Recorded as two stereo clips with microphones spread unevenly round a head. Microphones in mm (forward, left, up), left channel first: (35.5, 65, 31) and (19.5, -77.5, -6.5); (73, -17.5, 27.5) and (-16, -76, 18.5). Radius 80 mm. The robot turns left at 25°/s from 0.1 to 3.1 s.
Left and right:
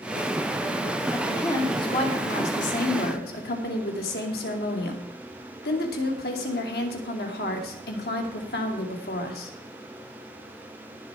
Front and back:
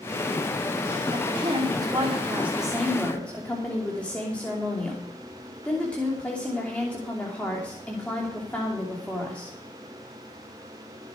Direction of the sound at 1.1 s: 165° left.